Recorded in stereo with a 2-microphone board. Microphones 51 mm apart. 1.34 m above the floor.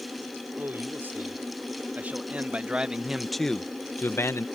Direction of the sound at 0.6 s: 45° right (ahead or behind).